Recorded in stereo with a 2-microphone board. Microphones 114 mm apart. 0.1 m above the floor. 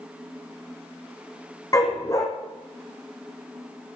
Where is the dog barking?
30° left (ahead or behind), 2.5 m.